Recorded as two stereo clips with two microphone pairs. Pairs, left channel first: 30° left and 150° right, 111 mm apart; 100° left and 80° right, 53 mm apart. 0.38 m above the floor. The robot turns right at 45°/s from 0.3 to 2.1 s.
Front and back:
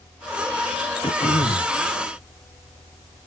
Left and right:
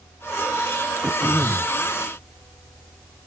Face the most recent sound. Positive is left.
turn(degrees=40)